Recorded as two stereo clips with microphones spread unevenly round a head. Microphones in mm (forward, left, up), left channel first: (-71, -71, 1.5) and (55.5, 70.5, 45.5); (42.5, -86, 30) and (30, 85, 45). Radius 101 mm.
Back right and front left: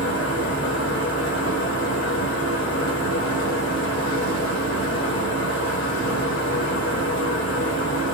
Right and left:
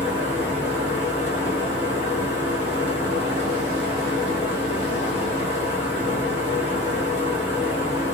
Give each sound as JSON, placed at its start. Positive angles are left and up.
{"t": 0.0, "sound": "a fan", "azimuth_deg": -145, "distance_m": 1.7}